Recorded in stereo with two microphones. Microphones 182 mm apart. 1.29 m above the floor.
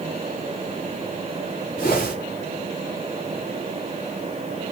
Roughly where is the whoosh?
Left.